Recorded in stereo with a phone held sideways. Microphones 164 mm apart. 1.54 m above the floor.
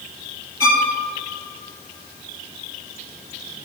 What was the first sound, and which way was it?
A violin, 20° right (ahead or behind).